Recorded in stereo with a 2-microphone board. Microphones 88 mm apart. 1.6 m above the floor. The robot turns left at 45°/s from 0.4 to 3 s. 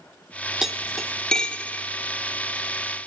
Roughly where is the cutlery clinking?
Centre.